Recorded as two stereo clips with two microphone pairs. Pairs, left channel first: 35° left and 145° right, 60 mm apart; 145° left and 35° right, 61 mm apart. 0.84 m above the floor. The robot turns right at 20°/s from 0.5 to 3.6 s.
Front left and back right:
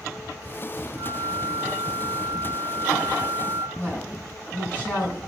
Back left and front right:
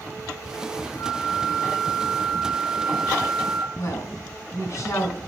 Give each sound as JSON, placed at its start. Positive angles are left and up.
{"t": 1.0, "sound": "a flute", "azimuth_deg": -165, "distance_m": 1.8}
{"t": 3.8, "sound": "a woman speaking", "azimuth_deg": 105, "distance_m": 6.0}